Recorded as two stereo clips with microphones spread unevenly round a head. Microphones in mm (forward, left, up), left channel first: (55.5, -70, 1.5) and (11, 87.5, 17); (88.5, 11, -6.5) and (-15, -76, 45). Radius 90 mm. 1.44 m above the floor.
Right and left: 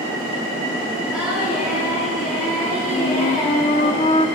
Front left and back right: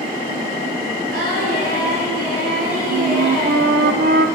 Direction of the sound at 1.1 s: 170° right.